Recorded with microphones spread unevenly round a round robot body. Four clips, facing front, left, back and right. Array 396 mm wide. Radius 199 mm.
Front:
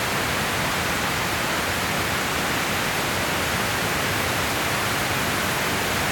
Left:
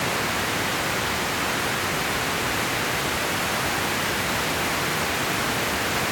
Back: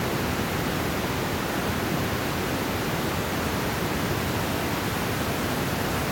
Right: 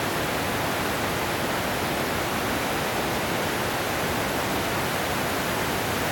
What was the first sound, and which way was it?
Only background noise.